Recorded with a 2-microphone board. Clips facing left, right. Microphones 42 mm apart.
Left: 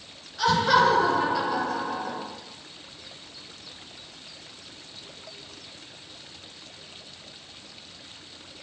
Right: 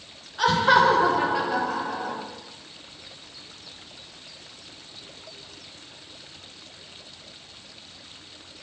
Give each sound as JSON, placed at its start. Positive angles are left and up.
{"t": 0.4, "sound": "laughter", "side_deg": -25, "distance_m": 1.2}